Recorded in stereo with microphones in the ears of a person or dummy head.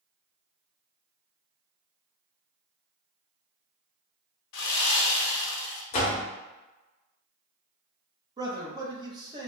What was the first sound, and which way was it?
Sawing, 75° left (ahead or behind).